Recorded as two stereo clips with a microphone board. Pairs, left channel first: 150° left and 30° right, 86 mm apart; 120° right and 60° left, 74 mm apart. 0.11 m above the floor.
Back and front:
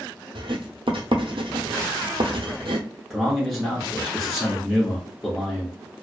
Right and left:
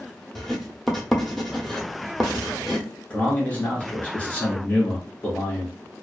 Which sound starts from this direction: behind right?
A man speaking, at 3.1 s.